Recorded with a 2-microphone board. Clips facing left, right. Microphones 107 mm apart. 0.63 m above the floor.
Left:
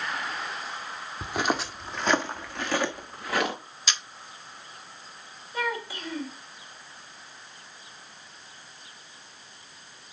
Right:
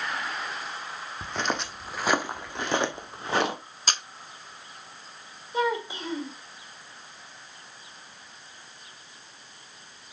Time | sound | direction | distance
1.2 | footsteps | 15° left (ahead or behind) | 1.0 m
3.9 | a camera shutter | 45° right (ahead or behind) | 0.6 m
5.5 | a child speaking | 20° right (ahead or behind) | 1.9 m